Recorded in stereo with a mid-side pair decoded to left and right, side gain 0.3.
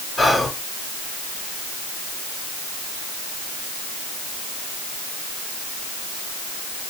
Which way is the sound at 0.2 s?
30° left.